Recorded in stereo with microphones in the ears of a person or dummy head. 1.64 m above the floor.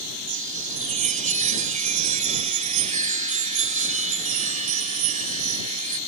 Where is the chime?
40° right (ahead or behind).